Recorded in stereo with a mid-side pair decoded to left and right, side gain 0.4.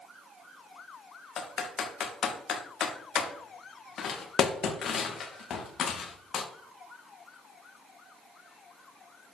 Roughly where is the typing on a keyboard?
Ahead left.